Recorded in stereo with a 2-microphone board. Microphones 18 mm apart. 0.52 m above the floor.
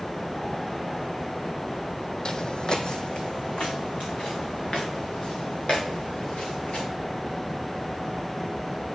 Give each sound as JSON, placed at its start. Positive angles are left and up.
{"t": 2.2, "sound": "footsteps", "side_deg": 35, "distance_m": 1.0}